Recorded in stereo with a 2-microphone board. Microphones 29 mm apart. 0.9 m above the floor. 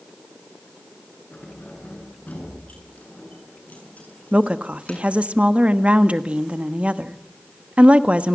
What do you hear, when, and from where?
1.3 s keys jangling: 75° left (ahead or behind), 8 m; by 5.0 s 60° left (ahead or behind), 7 m
4.3 s a woman speaking: 50° right (ahead or behind), 1.2 m